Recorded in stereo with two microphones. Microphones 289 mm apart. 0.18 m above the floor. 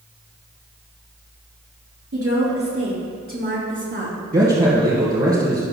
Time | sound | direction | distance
2.1 | a woman speaking | 55° right (ahead or behind) | 3.5 m
4.3 | a man speaking | 30° right (ahead or behind) | 2.5 m